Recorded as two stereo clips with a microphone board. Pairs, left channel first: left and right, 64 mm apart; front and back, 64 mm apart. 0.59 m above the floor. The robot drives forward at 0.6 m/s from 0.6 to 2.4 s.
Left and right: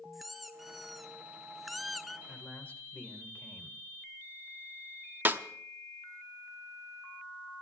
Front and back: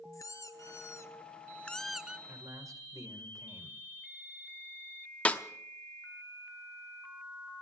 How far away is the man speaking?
About 1.9 m.